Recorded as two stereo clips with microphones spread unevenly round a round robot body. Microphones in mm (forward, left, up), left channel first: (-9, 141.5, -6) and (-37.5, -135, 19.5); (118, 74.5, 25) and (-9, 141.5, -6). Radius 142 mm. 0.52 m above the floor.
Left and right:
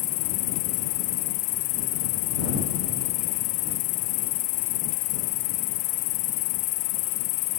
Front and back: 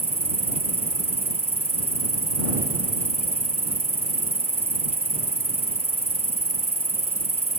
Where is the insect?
100° left.